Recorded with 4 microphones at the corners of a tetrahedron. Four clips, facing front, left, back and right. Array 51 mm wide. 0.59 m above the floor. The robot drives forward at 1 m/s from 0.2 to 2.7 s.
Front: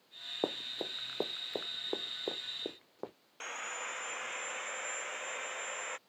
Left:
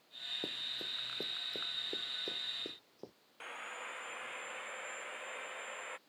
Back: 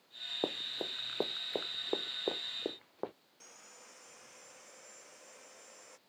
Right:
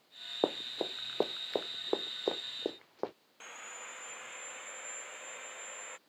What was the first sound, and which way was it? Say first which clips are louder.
Running footsteps: right 11 dB, front 1 dB; 85° right.